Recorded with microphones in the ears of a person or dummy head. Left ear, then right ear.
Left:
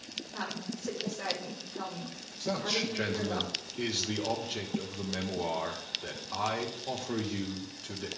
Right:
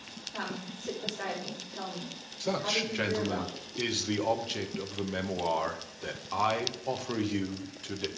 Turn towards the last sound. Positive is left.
turn(degrees=-20)  # may be behind; listen again after turning